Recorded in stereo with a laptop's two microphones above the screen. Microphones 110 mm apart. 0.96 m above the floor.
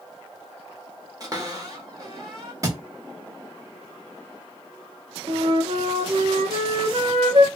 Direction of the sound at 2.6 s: 30° right (ahead or behind).